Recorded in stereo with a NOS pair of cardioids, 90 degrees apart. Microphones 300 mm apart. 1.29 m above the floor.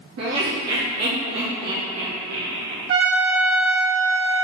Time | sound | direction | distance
0.2 | laughter | 60° right | 1.3 m
2.9 | a trumpet | 50° right | 1.5 m